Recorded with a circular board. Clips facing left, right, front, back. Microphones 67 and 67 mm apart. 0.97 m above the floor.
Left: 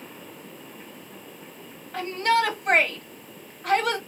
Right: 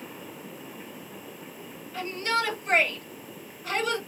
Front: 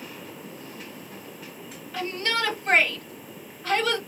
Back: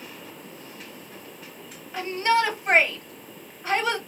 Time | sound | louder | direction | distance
1.9 | a shout | left 6 dB, back 6 dB | 110° left | 2.0 m